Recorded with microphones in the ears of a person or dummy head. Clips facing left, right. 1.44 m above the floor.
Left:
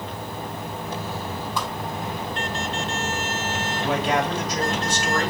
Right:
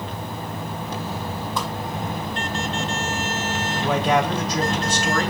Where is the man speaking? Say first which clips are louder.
Right 3 dB; 70° right (ahead or behind), 1.6 m.